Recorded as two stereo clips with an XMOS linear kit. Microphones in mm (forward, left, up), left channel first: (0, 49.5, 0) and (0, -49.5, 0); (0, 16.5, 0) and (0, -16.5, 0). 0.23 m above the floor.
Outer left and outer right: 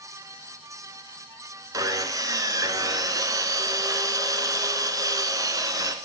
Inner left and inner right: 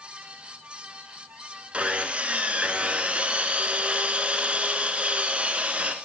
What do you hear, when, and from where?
1.7 s sawing: 35° right (ahead or behind), 0.6 m